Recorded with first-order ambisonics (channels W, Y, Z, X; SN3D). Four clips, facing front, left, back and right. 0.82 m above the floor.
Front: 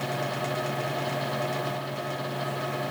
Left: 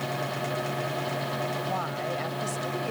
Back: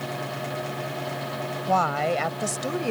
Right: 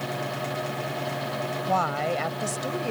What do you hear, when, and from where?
1.7 s a woman speaking: 155° right; by 2.9 s 165° right